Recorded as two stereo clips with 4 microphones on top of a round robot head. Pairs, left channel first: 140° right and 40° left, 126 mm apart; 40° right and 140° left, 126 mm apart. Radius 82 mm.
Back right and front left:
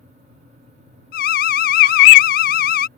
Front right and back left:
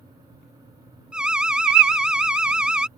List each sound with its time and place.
1.1 s an alarm: 135° right